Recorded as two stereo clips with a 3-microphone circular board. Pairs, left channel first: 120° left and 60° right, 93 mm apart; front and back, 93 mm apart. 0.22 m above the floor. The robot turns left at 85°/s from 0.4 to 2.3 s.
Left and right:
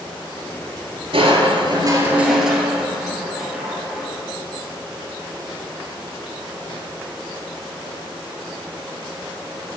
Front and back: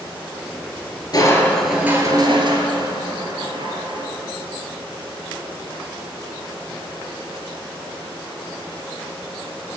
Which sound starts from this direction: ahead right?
Crushing, at 1.1 s.